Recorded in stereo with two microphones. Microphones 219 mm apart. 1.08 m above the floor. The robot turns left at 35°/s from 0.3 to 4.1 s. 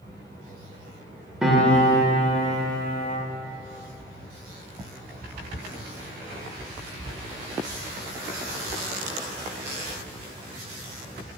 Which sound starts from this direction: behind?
A piano, at 1.4 s.